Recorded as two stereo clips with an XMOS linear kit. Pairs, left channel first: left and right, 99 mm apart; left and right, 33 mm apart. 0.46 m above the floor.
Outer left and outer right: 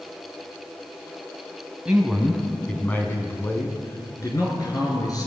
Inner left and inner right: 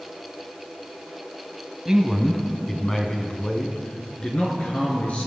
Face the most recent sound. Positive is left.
turn(degrees=40)  # may be behind; listen again after turning